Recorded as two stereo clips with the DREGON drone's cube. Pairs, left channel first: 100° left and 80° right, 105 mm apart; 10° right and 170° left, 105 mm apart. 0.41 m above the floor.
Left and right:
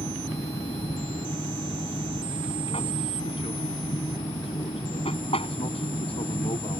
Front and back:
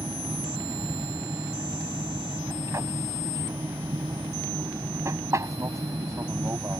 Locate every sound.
0.0 s an aircraft: 110° left